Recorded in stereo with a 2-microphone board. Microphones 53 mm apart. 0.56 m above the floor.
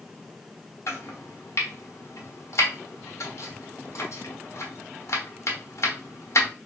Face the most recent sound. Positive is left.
turn(degrees=65)  # may be behind; listen again after turning